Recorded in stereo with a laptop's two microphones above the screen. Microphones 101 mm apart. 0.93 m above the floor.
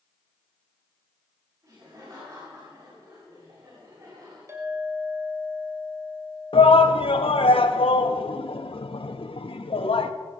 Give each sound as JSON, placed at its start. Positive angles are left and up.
{"t": 1.6, "sound": "laughter", "side_deg": -40, "distance_m": 6.5}
{"t": 4.5, "sound": "a clink", "side_deg": -30, "distance_m": 2.5}
{"t": 6.5, "sound": "a shout", "side_deg": 65, "distance_m": 1.0}